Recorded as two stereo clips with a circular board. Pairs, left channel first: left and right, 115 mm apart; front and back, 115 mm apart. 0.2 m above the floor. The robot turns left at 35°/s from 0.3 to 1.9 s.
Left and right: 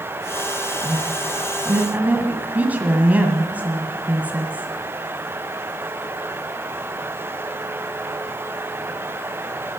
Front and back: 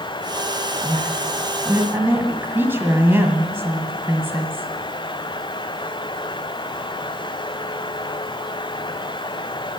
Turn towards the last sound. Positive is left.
turn(degrees=-145)